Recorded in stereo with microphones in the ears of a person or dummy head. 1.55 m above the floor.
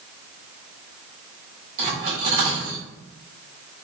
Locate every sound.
1.8 s cutlery clinking: 45° right (ahead or behind), 1.7 m